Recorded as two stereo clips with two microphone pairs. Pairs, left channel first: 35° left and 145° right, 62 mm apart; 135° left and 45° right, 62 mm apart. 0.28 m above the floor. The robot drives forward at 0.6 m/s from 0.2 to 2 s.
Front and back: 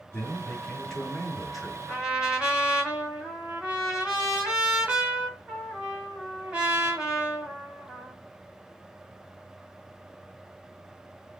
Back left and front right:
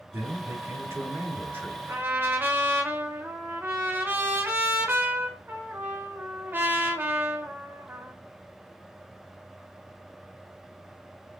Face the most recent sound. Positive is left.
turn(degrees=-75)